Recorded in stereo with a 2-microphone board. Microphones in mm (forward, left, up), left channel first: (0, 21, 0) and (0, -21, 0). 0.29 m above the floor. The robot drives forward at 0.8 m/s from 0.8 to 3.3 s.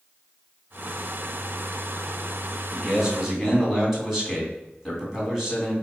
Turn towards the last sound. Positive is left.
turn(degrees=-10)  # may be behind; listen again after turning